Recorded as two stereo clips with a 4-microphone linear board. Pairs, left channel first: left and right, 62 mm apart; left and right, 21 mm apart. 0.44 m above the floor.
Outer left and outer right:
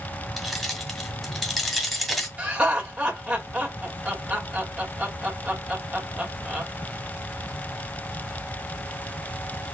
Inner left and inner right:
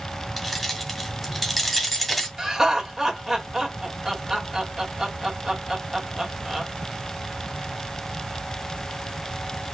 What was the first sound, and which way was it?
Keys jangling, centre (ahead or behind).